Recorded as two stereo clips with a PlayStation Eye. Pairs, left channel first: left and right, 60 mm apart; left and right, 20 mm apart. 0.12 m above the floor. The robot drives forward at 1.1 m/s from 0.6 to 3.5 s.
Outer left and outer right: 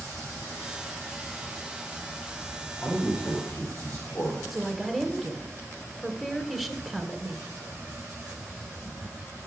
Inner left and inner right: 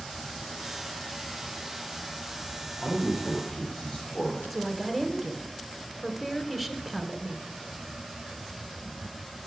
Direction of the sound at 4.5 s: Centre (ahead or behind).